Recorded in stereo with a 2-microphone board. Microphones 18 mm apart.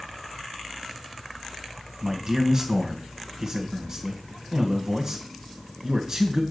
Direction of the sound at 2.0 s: 40° right (ahead or behind).